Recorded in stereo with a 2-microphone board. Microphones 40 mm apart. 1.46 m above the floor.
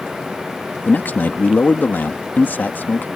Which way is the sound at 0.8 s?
50° left (ahead or behind).